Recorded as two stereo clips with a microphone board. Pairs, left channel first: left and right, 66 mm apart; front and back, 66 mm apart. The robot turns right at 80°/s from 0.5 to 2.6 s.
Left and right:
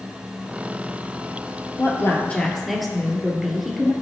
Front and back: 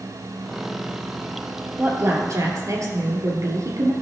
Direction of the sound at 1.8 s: 115° left.